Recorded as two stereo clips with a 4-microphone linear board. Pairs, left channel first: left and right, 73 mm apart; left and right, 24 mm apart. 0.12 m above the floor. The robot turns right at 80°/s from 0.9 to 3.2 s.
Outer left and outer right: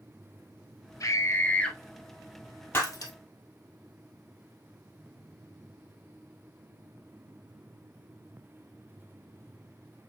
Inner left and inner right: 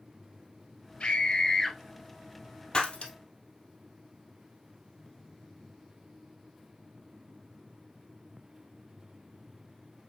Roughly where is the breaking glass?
Left.